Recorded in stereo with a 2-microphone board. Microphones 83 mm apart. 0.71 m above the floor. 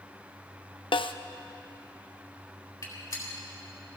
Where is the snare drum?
85° left, 0.5 m.